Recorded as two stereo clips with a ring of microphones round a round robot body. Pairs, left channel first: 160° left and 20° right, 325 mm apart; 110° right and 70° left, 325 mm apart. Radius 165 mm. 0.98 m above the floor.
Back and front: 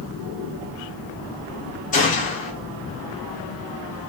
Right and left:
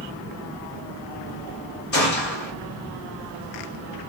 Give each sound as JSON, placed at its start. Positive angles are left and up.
{"t": 1.9, "sound": "a gunshot", "azimuth_deg": -150, "distance_m": 1.0}